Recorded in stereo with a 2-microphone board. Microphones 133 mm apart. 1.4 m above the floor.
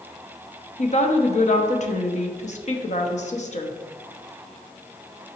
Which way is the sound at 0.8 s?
55° left (ahead or behind).